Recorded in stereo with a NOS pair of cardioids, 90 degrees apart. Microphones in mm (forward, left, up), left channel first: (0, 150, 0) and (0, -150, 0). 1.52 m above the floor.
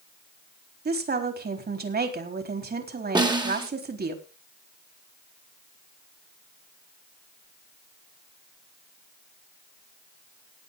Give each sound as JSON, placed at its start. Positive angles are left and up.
{"t": 0.8, "sound": "a woman speaking", "azimuth_deg": -35, "distance_m": 4.0}
{"t": 3.1, "sound": "a snare drum", "azimuth_deg": -15, "distance_m": 3.0}